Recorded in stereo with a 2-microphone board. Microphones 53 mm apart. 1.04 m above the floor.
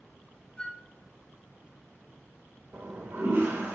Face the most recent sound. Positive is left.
turn(degrees=-60)  # may be behind; listen again after turning